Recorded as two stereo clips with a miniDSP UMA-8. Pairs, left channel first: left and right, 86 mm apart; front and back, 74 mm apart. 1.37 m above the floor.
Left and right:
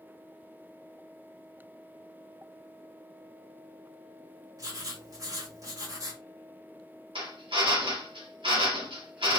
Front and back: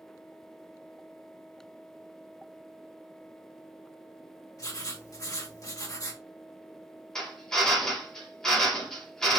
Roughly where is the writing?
Ahead right.